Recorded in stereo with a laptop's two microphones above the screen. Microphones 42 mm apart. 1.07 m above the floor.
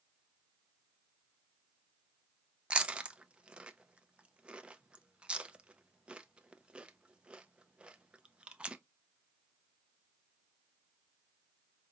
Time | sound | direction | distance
2.7 | chewing | 25° right (ahead or behind) | 0.6 m